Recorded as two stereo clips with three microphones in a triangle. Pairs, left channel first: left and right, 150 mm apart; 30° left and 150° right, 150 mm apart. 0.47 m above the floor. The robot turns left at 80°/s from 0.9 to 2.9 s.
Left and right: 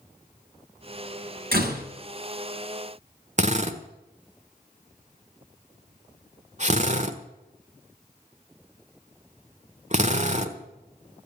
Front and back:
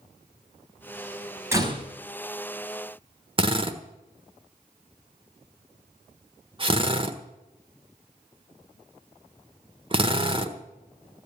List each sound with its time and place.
1.5 s a door slam: 80° right, 3 m; by 1.8 s 105° right, 3 m
3.4 s a drill: 105° right, 1.3 m